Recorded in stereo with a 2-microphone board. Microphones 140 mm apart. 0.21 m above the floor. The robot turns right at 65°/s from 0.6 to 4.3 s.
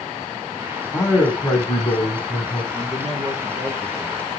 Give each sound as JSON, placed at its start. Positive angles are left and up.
{"t": 0.9, "sound": "a man speaking", "azimuth_deg": 25, "distance_m": 1.9}
{"t": 2.7, "sound": "a man speaking", "azimuth_deg": -135, "distance_m": 2.0}